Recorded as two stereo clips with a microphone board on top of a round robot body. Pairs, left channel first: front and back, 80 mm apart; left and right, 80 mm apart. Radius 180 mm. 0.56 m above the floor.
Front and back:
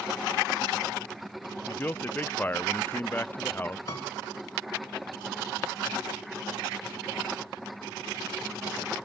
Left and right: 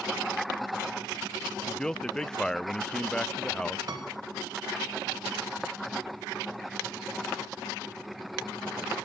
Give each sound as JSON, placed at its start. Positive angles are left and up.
{"t": 1.7, "sound": "a man speaking", "azimuth_deg": 20, "distance_m": 0.6}
{"t": 3.9, "sound": "a piano", "azimuth_deg": -45, "distance_m": 1.7}